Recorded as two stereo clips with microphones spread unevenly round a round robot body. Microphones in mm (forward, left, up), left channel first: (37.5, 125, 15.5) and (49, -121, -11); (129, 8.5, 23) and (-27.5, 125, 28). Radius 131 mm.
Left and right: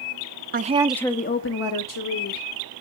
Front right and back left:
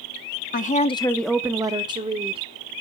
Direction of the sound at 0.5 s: 60° right.